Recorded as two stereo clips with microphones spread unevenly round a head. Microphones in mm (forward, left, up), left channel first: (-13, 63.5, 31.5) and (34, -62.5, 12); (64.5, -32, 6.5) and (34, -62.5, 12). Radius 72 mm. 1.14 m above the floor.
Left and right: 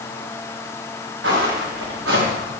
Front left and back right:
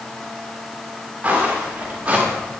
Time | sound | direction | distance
1.2 | footsteps | 75° right | 10 m